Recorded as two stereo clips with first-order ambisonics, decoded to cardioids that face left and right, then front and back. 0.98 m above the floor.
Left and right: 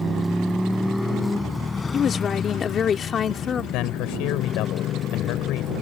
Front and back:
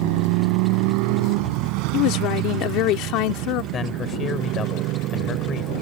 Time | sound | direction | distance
0.0 | a motorcycle | 170° right | ?
1.9 | a woman speaking | 25° left | ?
3.7 | a man speaking | 60° left | ?